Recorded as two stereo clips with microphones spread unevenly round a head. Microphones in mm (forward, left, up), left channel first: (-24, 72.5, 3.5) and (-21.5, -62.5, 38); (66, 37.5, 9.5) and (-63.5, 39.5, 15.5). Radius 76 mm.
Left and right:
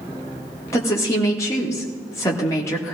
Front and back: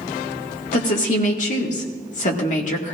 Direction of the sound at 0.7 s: 20° left.